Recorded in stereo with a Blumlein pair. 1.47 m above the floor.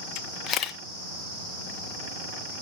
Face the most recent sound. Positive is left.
turn(degrees=30)